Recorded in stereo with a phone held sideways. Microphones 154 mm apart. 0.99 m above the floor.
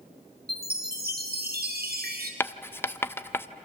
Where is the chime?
80° right, 2.5 m.